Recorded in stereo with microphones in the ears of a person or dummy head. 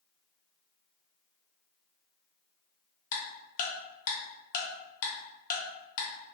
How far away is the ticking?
About 0.7 m.